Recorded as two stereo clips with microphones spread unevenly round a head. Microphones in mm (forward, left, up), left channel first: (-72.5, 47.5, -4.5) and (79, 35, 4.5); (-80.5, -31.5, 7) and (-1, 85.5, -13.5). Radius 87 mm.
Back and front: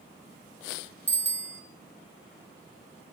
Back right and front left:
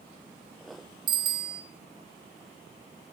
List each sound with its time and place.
1.1 s a bicycle bell: 70° left, 2 m